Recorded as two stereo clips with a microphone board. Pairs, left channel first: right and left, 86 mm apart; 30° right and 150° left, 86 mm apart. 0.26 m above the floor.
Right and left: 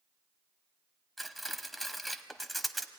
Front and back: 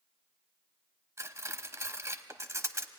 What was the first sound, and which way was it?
Cutlery clinking, straight behind.